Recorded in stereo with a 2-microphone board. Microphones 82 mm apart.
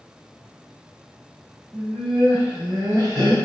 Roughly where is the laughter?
Centre.